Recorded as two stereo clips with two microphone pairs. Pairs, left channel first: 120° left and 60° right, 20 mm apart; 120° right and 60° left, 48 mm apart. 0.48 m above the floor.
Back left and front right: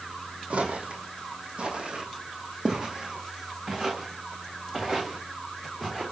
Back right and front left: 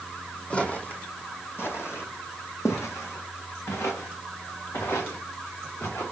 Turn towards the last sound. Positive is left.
turn(degrees=-140)